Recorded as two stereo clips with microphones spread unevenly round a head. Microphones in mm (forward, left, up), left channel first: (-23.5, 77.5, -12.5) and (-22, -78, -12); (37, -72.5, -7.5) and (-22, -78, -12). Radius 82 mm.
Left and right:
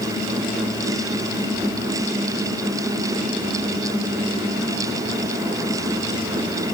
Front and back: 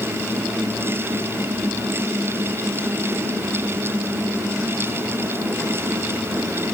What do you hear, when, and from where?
Only background noise.